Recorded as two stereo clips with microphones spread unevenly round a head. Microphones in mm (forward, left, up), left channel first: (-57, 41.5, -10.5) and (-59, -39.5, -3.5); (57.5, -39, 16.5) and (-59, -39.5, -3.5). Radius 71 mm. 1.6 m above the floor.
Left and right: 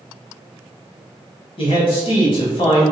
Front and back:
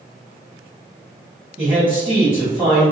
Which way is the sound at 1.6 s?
95° left.